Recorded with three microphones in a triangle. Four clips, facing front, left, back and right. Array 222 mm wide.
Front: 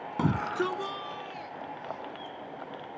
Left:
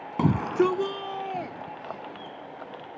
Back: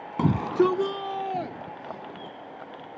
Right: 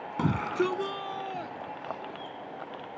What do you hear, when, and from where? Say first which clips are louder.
0.2 s a shout: left 5 dB, back 7 dB; 120° left; by 2.4 s 160° left